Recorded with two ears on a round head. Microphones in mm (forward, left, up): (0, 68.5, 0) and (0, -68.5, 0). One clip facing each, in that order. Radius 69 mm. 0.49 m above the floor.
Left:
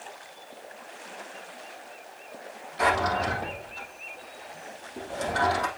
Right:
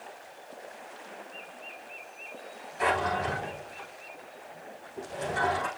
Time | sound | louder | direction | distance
2.8 | a drawer | left 3 dB | 75° left (ahead or behind) | 5 m